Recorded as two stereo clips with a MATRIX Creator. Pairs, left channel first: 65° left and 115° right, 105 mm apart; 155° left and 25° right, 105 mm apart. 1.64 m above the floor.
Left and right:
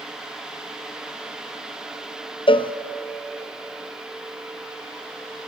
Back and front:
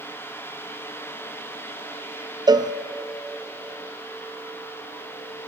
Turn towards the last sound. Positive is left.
turn(degrees=30)